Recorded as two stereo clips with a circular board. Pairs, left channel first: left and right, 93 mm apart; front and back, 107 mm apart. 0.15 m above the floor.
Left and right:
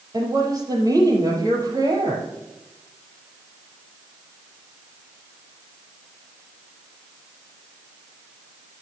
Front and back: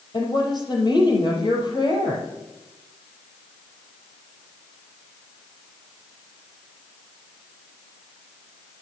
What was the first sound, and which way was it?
A woman speaking, 40° right.